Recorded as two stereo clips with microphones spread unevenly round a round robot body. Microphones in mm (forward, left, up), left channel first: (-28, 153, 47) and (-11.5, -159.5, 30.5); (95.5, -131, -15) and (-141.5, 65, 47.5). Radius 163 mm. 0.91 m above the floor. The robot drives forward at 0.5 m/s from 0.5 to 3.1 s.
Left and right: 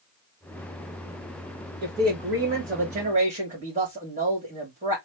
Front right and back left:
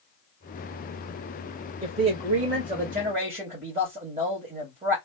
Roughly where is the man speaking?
Behind right.